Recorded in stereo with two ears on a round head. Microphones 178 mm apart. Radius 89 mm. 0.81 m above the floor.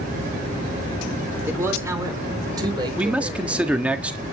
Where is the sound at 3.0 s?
5° right (ahead or behind), 1.4 m.